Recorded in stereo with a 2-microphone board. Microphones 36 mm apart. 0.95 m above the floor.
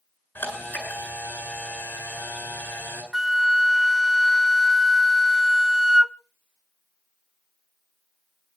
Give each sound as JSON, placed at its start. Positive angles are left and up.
{"t": 0.3, "sound": "a camera shutter", "side_deg": 70, "distance_m": 9.5}
{"t": 3.1, "sound": "a flute", "side_deg": -15, "distance_m": 0.6}